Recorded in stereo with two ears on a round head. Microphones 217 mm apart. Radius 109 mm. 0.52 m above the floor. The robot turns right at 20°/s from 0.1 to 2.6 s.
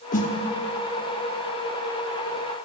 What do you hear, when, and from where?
0.1 s a snare drum: 35° left (ahead or behind), 1.0 m